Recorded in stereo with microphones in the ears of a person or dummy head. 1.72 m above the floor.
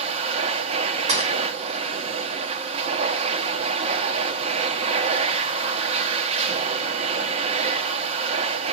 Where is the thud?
40° right (ahead or behind), 2.5 m.